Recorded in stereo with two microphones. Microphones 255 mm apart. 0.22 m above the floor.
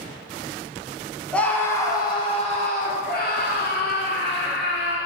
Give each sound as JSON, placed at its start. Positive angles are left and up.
{"t": 1.3, "sound": "a scream", "side_deg": 5, "distance_m": 1.6}